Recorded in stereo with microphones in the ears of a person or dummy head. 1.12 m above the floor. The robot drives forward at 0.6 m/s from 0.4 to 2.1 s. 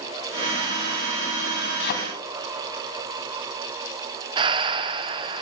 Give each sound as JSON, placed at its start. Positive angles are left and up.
{"t": 1.8, "sound": "a thud", "side_deg": 55, "distance_m": 2.0}
{"t": 4.4, "sound": "breathing", "side_deg": -25, "distance_m": 0.7}